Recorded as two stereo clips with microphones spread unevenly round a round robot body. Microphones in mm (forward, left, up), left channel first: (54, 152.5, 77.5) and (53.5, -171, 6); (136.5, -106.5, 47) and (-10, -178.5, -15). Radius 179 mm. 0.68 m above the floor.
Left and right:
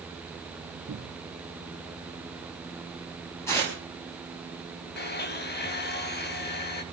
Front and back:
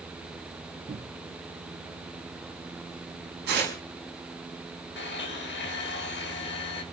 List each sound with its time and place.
0.9 s a cupboard door: 130° right, 1.4 m
3.5 s tearing paper: 175° left, 5 m
5.0 s a blender: 30° left, 1.6 m